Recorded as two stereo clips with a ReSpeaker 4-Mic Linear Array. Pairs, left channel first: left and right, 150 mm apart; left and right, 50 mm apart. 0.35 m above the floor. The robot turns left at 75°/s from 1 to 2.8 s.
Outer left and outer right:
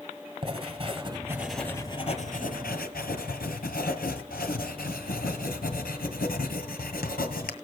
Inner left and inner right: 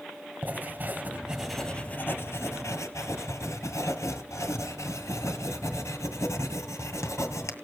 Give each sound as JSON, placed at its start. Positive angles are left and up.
{"t": 0.4, "sound": "writing", "azimuth_deg": -145, "distance_m": 2.0}